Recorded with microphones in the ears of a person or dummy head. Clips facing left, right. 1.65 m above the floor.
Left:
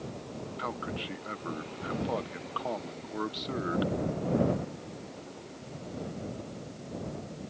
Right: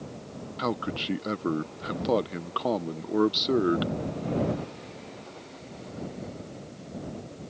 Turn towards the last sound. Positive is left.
turn(degrees=-55)  # may be behind; listen again after turning